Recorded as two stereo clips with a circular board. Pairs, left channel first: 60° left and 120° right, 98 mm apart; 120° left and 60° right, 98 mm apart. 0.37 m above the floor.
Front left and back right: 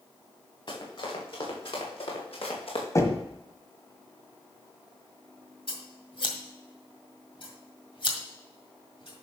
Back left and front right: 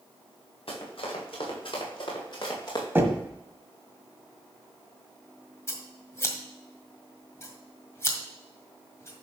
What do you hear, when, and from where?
0.7 s running footsteps: 95° left, 5.5 m; by 2.9 s 70° left, 4 m
3.0 s knocking: 5° left, 1.6 m
5.7 s scissors: 60° left, 1.7 m